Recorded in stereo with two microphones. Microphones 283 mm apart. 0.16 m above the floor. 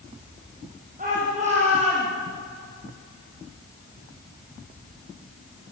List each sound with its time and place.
1.0 s a shout: 30° right (ahead or behind), 6 m; by 2.1 s 15° right (ahead or behind), 6.5 m